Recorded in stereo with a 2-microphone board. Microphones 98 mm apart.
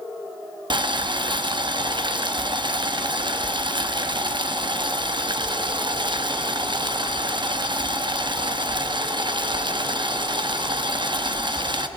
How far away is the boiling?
About 1.0 m.